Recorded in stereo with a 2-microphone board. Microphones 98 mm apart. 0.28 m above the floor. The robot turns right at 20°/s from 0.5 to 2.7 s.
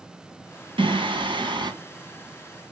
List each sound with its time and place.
0.8 s singing: 65° right (ahead or behind), 1.9 m; by 1.7 s 55° right (ahead or behind), 1.9 m